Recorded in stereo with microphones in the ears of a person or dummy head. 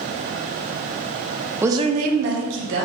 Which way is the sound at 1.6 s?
10° right (ahead or behind).